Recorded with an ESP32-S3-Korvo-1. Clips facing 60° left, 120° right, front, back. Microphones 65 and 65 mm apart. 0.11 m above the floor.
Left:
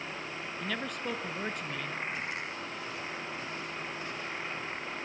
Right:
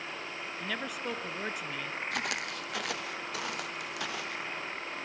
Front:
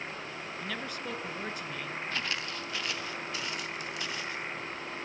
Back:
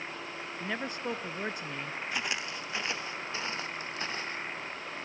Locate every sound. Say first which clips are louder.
0.6 s a man speaking: left 1 dB, back 4 dB; 160° left, 1.3 m
2.1 s footsteps: right 2 dB, back 2 dB; 100° right, 1.8 m; by 4.5 s 125° right, 3 m